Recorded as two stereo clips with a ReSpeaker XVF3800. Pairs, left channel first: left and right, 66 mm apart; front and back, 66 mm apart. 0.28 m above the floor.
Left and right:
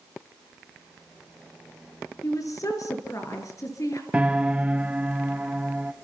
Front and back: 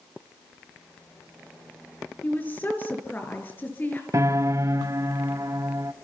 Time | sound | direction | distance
2.2 | a woman speaking | 60° left | 5.5 m
4.1 | a piano | 160° right | 0.7 m